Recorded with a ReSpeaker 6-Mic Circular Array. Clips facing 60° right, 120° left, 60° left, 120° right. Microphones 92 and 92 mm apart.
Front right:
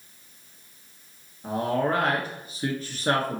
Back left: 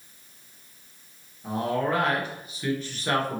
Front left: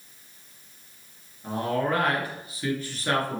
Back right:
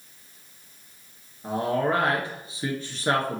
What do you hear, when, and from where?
1.4 s a man speaking: 75° right, 1.4 m